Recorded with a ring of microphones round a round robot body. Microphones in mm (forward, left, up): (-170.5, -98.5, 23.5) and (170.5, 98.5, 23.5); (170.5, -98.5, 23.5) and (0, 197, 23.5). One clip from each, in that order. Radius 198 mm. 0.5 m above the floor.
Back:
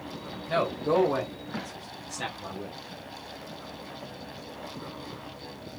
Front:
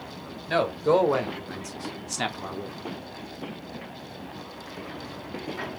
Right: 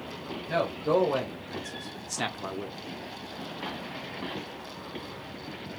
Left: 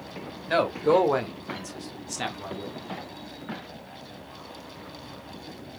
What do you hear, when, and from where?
0.5 s a man speaking: 95° left, 2 m; by 2.8 s 15° right, 1.4 m